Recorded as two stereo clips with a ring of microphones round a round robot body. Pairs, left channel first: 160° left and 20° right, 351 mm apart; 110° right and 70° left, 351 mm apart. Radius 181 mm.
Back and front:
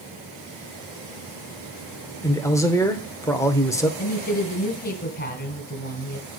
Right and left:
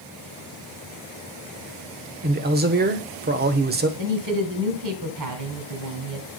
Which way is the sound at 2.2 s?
85° left.